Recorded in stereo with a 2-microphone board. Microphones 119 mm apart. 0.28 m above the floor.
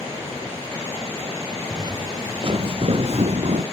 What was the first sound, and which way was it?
Footsteps, 30° right (ahead or behind).